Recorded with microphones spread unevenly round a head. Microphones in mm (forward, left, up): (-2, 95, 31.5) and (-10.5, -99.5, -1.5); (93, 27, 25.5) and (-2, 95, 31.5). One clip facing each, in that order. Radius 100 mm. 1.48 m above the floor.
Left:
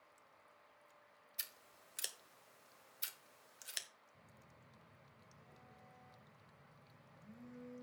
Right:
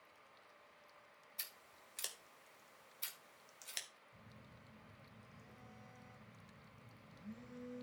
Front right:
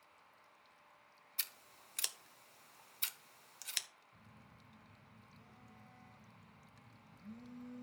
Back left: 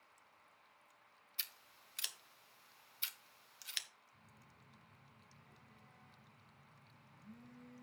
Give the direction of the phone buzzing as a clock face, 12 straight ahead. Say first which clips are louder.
Right 5 dB, front right 5 dB; 2 o'clock.